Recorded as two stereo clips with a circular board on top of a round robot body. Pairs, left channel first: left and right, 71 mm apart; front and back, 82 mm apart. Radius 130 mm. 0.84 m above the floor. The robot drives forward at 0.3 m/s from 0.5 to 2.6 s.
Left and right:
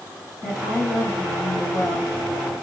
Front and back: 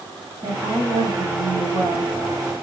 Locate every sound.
0.4 s a woman speaking: 160° left, 1.6 m; by 2.6 s 165° left, 2 m